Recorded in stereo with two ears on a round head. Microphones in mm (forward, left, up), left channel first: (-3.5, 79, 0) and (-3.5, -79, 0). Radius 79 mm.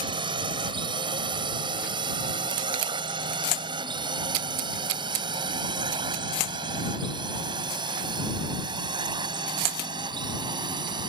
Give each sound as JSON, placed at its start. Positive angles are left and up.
{"t": 0.0, "sound": "a drone", "side_deg": -25}